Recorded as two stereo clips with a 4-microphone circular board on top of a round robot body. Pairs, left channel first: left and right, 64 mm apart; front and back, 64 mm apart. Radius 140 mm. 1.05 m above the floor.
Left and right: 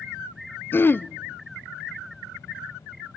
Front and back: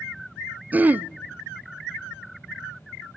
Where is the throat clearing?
130° left, 0.7 m.